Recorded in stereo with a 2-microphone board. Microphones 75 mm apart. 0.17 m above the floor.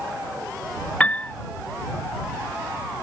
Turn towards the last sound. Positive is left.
turn(degrees=15)  # may be behind; listen again after turning